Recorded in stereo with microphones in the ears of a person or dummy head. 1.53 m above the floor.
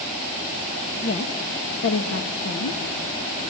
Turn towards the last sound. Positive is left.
turn(degrees=75)  # may be behind; listen again after turning